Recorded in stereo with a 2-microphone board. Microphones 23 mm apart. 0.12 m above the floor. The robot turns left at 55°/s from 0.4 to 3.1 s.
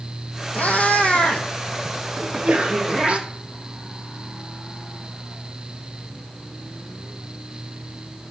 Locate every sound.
0.6 s a cat meowing: 80° left, 1.3 m; by 3.2 s 50° right (ahead or behind), 1.3 m
2.2 s a sneeze: 65° right, 1.9 m; by 3.0 s 115° right, 1.9 m